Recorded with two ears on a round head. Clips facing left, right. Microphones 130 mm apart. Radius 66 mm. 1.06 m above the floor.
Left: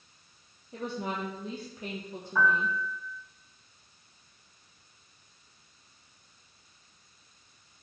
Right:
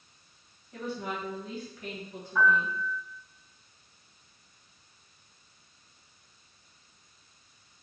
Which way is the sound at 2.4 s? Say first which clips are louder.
Right 1 dB; 80° left.